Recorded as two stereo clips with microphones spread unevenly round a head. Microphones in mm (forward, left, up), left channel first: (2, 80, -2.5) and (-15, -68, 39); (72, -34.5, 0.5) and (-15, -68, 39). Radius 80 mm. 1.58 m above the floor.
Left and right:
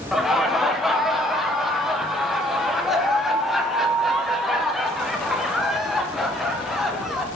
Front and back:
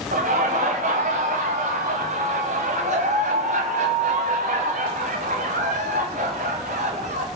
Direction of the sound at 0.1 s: 175° left.